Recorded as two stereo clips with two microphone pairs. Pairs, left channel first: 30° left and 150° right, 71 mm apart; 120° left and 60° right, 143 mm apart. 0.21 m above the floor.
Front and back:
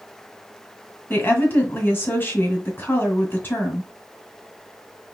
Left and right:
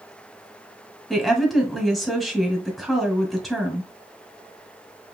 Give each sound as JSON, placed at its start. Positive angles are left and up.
{"t": 1.1, "sound": "a woman speaking", "azimuth_deg": 30, "distance_m": 1.7}